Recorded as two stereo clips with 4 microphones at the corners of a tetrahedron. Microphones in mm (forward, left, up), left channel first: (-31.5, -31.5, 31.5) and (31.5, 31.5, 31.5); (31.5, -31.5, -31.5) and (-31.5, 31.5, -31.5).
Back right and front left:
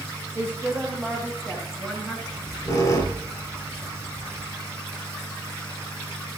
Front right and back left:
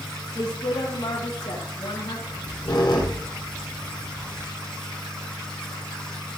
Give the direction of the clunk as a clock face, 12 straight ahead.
I don't hear a clunk.